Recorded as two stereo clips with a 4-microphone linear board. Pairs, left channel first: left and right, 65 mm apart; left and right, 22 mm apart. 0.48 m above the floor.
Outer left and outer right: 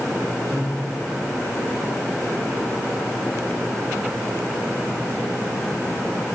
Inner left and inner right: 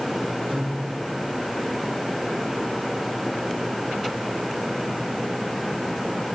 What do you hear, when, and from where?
0.5 s a guitar: 85° right, 10 m